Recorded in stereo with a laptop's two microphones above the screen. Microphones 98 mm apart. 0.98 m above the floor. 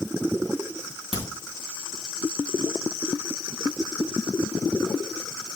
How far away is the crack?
About 3 m.